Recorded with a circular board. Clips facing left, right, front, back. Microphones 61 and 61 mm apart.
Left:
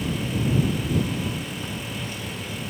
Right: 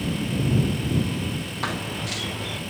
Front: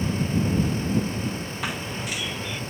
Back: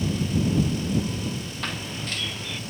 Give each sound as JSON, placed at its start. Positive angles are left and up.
{"t": 1.6, "sound": "running footsteps", "azimuth_deg": -80}